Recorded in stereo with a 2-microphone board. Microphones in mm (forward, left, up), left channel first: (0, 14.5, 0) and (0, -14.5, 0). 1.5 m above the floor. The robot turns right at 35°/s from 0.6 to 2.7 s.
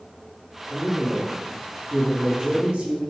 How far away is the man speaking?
About 1.2 m.